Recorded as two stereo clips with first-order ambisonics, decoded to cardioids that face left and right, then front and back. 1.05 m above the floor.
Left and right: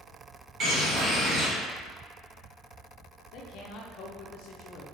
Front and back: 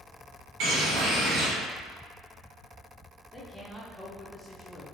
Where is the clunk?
No clunk in this recording.